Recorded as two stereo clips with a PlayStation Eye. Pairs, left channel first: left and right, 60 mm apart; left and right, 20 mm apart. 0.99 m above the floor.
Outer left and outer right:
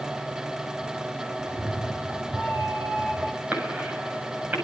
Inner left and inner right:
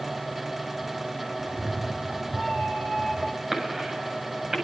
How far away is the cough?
About 7 m.